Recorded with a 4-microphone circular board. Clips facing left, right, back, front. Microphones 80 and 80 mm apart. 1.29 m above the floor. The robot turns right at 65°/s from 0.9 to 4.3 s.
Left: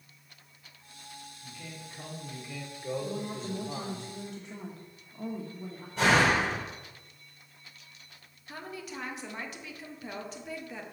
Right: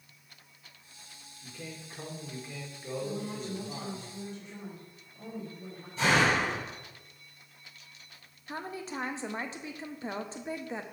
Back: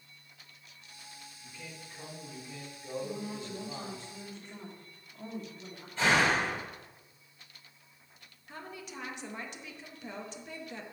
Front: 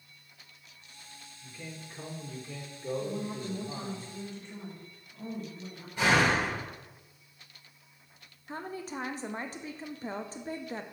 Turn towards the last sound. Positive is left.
turn(degrees=-35)